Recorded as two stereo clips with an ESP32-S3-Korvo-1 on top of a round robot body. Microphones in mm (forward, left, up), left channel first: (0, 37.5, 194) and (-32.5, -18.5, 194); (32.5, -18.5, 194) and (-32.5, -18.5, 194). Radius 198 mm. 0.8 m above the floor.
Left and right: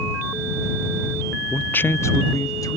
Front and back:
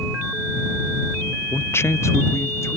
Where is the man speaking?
10° right; by 2.8 s 40° left.